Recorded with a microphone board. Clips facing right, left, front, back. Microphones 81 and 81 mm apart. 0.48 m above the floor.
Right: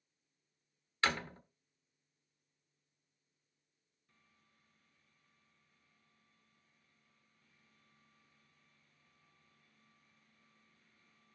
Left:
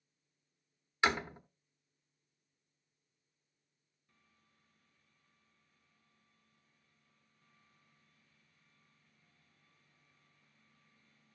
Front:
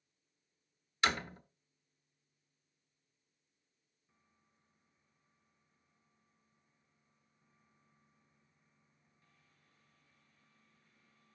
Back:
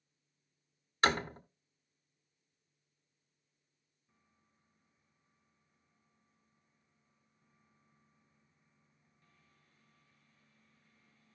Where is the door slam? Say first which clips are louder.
Left 3 dB, back 4 dB; 155° left, 1.1 m.